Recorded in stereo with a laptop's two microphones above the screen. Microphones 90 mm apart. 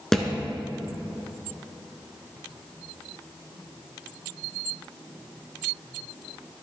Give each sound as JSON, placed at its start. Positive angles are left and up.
{"t": 0.1, "sound": "a thud", "side_deg": 5, "distance_m": 1.1}